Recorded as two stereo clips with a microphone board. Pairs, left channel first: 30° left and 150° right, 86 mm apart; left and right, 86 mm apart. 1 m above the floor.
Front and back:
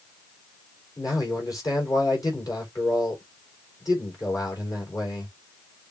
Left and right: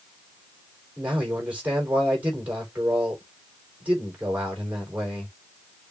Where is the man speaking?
15° right, 3.5 m.